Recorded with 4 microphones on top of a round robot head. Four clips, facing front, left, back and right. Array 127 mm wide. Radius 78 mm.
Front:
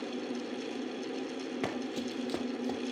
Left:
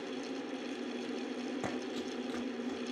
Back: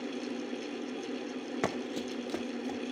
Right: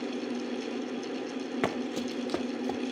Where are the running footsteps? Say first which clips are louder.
Right 7 dB, back 2 dB; 120° right, 0.9 m; by 2.8 s 70° right, 1.6 m.